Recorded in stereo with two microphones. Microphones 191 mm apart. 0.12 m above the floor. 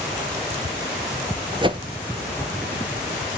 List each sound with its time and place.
1.6 s a whoosh: 25° right (ahead or behind), 0.7 m